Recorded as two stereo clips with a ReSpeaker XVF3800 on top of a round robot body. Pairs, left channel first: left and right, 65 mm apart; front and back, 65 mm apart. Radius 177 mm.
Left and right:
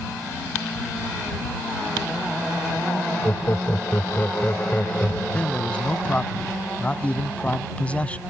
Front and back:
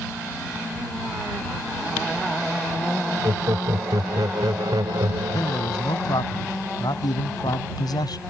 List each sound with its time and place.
3.2 s laughter: 150° left; by 5.8 s 165° left
5.3 s a man speaking: 20° left